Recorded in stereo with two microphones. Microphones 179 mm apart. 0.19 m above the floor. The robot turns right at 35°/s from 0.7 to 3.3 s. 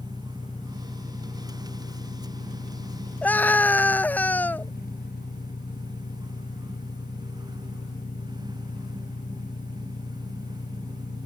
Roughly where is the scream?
Centre.